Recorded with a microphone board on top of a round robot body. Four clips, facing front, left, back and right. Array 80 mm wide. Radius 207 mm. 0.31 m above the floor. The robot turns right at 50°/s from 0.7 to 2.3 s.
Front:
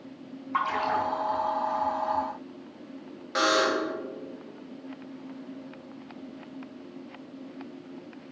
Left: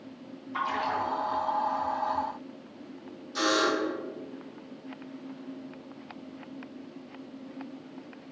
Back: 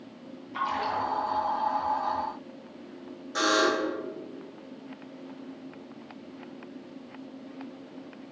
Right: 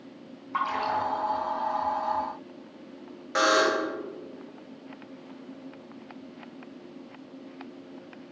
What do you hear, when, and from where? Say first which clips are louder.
0.5 s a splash: right 2 dB, front 2 dB; 30° right, 3.5 m; by 1.0 s 15° right, 3.5 m
3.4 s a buzzer: right 4 dB, even; 70° right, 1.4 m